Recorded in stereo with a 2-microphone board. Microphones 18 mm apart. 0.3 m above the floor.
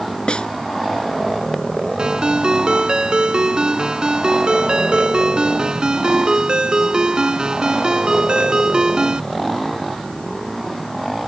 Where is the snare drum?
75° left (ahead or behind).